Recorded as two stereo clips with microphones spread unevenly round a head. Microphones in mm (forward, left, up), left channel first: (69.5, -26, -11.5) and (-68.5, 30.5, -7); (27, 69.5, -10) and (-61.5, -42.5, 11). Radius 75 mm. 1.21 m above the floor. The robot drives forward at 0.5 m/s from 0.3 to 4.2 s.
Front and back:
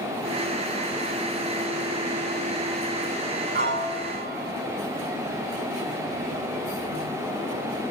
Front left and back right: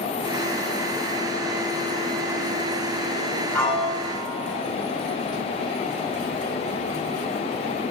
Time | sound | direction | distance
3.5 | a piano | 135° left | 6.5 m